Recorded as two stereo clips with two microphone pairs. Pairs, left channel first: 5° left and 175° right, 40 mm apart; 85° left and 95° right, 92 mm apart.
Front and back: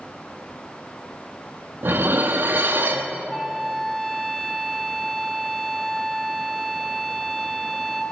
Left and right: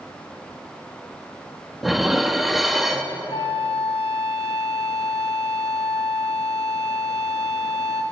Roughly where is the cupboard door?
No cupboard door in this recording.